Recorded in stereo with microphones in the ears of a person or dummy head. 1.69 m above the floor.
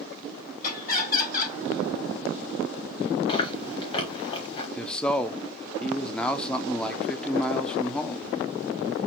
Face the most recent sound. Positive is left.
turn(degrees=10)  # may be behind; listen again after turning